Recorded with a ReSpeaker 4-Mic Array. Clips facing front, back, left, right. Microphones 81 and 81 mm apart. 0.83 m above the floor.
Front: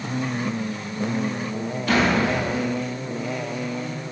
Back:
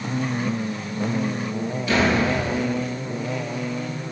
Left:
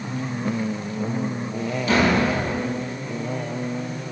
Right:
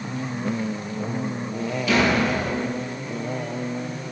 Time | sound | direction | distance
1.9 | a door slam | 35° left | 5 m